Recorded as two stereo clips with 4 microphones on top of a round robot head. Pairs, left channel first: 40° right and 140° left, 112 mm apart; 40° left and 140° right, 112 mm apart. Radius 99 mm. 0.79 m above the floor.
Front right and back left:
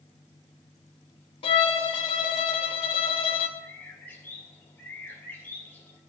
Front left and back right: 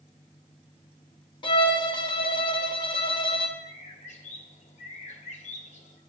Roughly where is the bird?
Ahead left.